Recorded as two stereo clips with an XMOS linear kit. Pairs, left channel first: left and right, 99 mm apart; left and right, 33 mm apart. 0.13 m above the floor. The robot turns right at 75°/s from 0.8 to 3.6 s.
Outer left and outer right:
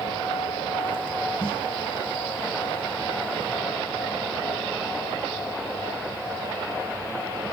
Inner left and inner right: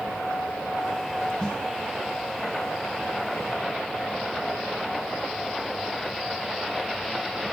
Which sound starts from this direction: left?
A snare drum, at 1.4 s.